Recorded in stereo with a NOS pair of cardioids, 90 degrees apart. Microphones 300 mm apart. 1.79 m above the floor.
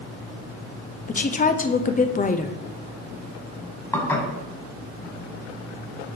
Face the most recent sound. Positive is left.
turn(degrees=5)